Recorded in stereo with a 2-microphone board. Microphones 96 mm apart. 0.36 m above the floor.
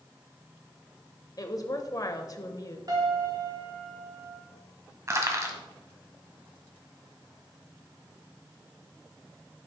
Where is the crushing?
35° right (ahead or behind), 1.7 m.